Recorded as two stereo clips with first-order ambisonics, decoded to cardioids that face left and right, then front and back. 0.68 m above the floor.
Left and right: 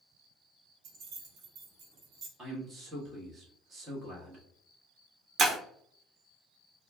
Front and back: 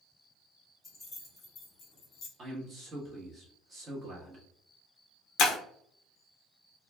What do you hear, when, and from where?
0.8 s keys jangling: 80° right, 1.5 m; by 2.3 s 40° right, 0.9 m
2.4 s a man speaking: 135° right, 1.1 m
5.4 s breaking glass: 35° right, 0.8 m